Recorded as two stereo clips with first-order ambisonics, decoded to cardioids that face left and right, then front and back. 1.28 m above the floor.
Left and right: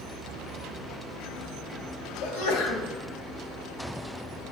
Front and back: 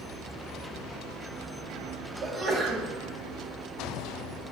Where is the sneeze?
100° left, 1.3 m.